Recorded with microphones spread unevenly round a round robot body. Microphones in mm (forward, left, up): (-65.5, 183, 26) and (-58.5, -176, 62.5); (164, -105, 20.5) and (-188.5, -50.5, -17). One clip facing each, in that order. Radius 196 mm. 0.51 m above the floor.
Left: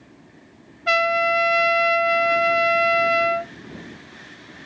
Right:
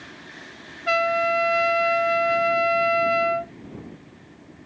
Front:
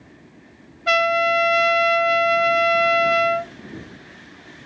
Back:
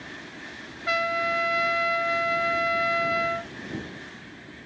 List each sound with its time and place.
0.9 s a trumpet: 25° left